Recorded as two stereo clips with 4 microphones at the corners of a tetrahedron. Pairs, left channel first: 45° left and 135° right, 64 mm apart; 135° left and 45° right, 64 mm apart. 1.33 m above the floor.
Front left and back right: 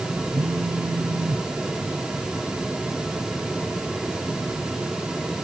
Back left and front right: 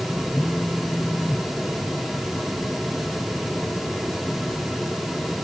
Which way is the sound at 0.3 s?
145° right.